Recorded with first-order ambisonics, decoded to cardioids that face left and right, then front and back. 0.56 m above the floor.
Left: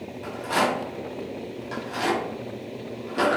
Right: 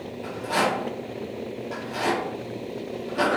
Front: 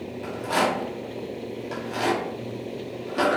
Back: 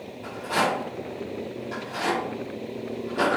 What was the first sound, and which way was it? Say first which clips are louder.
A rattle: even, front 1 dB; 40° left.